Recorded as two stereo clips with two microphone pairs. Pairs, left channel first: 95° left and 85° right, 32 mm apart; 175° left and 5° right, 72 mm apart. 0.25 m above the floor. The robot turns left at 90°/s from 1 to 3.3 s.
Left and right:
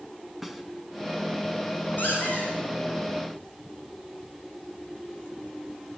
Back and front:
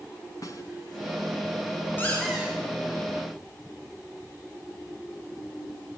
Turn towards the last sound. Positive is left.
turn(degrees=-5)